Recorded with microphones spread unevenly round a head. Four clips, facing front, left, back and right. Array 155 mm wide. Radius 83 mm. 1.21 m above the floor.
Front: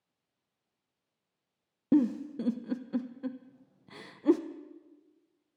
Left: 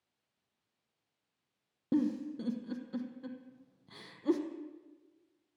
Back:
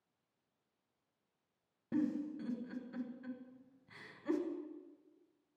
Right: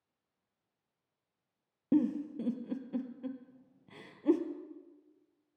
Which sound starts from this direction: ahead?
A giggle, at 1.9 s.